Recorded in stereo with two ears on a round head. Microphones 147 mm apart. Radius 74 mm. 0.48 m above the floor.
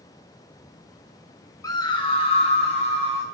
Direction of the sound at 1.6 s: 20° left (ahead or behind).